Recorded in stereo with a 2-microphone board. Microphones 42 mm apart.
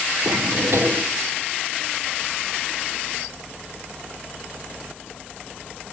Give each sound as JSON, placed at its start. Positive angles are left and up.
{"t": 0.2, "sound": "a drawer", "side_deg": -75, "distance_m": 1.4}